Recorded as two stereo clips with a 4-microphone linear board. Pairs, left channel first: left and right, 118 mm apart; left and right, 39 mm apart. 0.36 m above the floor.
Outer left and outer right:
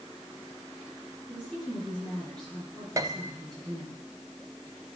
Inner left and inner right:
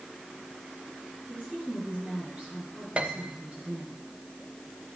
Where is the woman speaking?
40° right (ahead or behind), 5.5 m.